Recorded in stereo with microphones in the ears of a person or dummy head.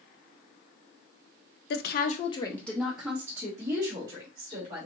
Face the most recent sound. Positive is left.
turn(degrees=-25)  # may be behind; listen again after turning